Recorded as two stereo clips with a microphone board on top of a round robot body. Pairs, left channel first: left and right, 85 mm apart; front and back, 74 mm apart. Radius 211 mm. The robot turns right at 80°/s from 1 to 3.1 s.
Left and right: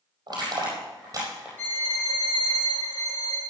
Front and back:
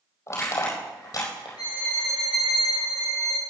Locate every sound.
0.3 s crushing: 50° right, 5 m; by 1.5 s 15° right, 5 m
1.6 s a violin: 25° left, 6.5 m; by 3.4 s 145° left, 6.5 m